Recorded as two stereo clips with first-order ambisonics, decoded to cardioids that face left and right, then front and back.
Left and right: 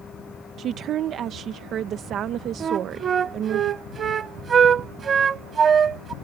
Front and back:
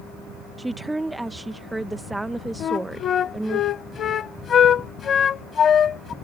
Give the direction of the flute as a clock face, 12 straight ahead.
1 o'clock.